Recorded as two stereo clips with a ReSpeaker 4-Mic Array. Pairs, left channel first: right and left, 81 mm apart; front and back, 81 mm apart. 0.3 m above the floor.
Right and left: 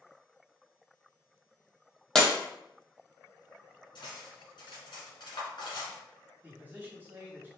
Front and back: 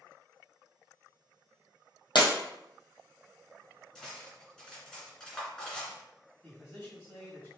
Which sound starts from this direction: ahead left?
A man speaking, at 6.4 s.